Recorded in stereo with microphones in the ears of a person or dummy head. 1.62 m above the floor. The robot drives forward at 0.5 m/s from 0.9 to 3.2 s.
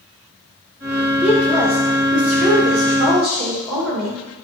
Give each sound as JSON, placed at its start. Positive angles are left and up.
{"t": 1.2, "sound": "a woman speaking", "side_deg": -5, "distance_m": 1.6}